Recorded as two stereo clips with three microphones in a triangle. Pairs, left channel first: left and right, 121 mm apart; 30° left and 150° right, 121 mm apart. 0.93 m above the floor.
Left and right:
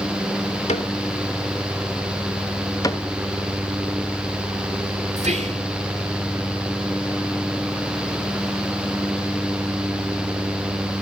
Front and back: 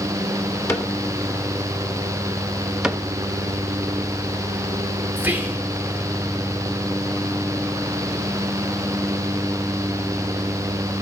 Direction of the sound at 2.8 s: 130° left.